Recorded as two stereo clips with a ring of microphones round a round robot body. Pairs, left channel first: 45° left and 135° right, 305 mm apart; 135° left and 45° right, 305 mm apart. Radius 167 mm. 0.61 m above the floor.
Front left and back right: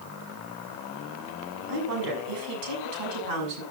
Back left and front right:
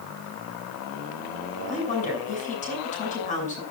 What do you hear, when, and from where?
1.7 s a woman speaking: 155° right, 6.5 m